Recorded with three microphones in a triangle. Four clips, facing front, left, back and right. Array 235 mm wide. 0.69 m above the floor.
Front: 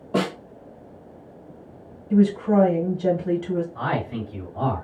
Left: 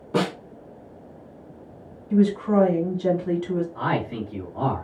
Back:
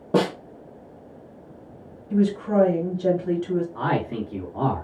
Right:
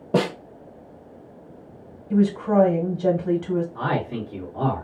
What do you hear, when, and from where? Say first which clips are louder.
0.1 s a snare drum: right 2 dB, back 3 dB; 130° right, 1.3 m
2.1 s a woman speaking: even, front 3 dB; 90° right, 1.5 m
3.8 s a man speaking: even, back 2 dB; 170° right, 1.8 m